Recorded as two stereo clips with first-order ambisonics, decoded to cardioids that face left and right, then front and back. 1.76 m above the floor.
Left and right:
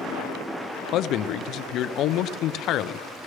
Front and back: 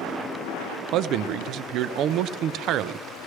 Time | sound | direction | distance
0.9 | a man speaking | 135° left | 0.5 m